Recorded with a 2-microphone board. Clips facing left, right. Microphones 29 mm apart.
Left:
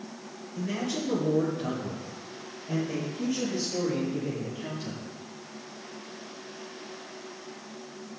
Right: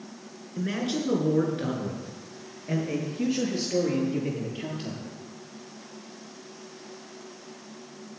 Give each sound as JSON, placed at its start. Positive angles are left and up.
{"t": 0.6, "sound": "a man speaking", "side_deg": -65, "distance_m": 3.0}